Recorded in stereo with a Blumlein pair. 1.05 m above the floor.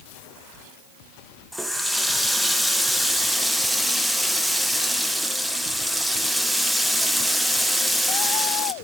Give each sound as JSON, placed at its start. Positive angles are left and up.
{"t": 1.5, "sound": "a running tap", "azimuth_deg": 0, "distance_m": 0.7}